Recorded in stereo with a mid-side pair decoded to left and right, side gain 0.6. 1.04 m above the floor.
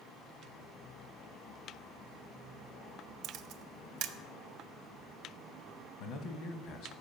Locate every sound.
3.2 s a camera shutter: 65° right, 0.5 m
6.0 s a man speaking: 70° left, 1.2 m